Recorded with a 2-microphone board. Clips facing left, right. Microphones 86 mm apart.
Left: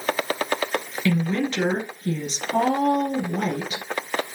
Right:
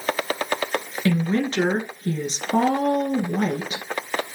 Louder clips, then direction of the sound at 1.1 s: Right 1 dB; 30° right (ahead or behind).